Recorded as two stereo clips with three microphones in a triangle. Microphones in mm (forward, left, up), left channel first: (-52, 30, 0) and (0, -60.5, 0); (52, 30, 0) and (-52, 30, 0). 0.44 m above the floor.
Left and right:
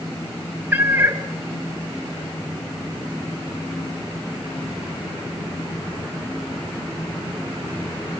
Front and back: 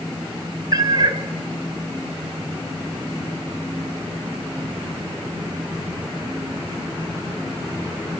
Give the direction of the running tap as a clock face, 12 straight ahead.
I don't hear a running tap.